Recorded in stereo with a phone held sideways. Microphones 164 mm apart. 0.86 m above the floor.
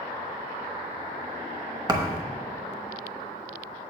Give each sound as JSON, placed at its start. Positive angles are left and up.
{"t": 1.9, "sound": "a thud", "side_deg": -25, "distance_m": 0.9}